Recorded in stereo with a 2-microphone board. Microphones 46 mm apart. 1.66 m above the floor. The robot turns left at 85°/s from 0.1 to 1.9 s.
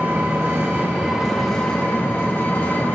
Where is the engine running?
70° right, 1.4 m; by 3.0 s 135° left, 1.4 m.